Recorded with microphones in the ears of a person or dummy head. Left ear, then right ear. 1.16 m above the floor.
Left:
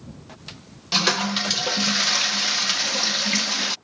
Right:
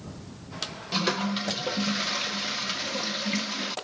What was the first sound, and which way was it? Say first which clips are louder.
A toilet flushing: left 7 dB; 30° left (ahead or behind).